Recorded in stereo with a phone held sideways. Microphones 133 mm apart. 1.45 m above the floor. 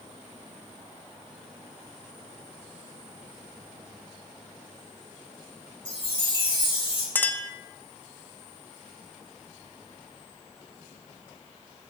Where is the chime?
45° left (ahead or behind), 7.5 m.